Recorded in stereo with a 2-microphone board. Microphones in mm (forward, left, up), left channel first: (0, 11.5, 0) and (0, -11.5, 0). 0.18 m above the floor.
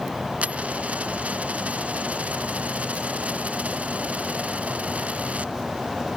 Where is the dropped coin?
80° right.